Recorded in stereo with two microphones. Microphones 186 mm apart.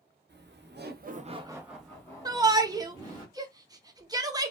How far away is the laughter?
About 1.1 m.